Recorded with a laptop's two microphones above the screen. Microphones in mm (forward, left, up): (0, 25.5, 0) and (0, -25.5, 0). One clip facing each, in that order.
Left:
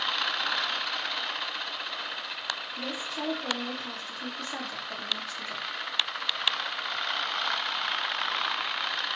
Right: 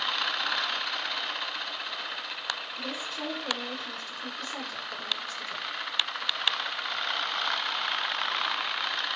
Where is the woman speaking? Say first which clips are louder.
Left 1 dB; 85° left, 7 m.